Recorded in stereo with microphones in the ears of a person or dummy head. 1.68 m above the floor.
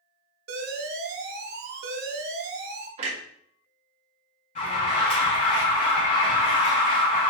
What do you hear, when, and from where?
0.5 s an alarm: 50° right (ahead or behind), 0.6 m
3.0 s a clunk: 40° right (ahead or behind), 1.1 m
4.5 s an alarm: 45° left (ahead or behind), 1.8 m